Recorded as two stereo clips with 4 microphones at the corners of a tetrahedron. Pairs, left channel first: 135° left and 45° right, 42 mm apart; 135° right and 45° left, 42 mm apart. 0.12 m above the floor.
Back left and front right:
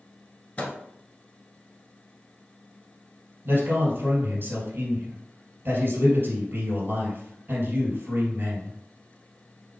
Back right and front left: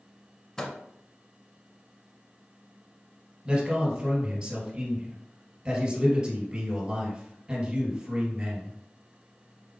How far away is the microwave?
About 1.2 m.